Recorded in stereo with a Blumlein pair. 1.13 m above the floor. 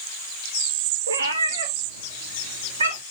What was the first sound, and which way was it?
A cat meowing, 70° right.